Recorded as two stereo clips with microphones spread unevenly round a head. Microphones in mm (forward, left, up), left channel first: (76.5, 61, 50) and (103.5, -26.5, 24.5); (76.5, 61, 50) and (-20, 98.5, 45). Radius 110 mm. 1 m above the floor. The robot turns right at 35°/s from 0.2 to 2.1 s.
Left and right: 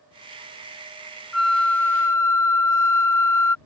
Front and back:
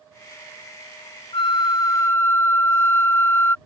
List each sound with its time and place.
1.3 s a flute: 20° left; by 3.5 s 45° left